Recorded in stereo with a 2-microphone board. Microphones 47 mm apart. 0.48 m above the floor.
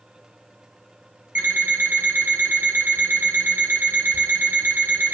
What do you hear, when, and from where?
1.4 s an alarm clock: 45° right (ahead or behind), 1.3 m